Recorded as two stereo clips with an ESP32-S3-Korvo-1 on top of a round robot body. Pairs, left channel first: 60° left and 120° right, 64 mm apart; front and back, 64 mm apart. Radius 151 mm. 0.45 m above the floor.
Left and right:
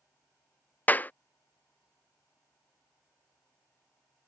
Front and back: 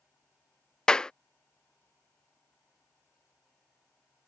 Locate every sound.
0.9 s a clap: 65° left